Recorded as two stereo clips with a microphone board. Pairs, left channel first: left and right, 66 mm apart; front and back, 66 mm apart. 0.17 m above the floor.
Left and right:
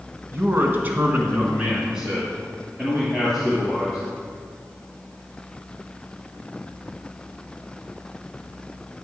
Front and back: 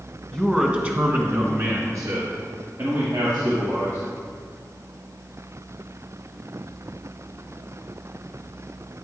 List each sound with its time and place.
0.3 s a man speaking: 85° right, 1.3 m; by 4.0 s straight behind, 3.5 m